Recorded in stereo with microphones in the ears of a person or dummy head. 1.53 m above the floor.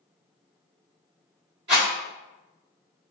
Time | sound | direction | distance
1.7 | a rattle | 20° right (ahead or behind) | 0.9 m